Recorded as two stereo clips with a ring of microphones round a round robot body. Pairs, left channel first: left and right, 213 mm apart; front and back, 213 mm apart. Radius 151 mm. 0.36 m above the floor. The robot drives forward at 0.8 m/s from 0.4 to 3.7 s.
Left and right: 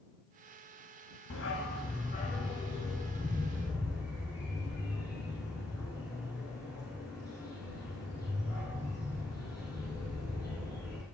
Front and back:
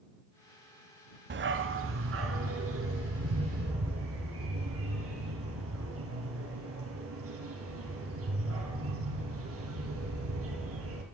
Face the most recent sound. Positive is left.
turn(degrees=170)